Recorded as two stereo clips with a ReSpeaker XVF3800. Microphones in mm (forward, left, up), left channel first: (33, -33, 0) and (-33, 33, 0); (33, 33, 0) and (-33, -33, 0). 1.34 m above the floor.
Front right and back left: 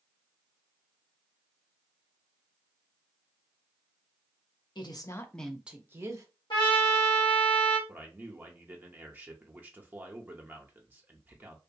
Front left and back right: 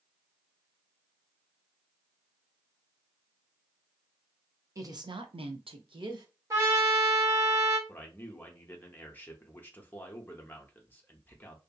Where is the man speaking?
90° left, 0.5 m.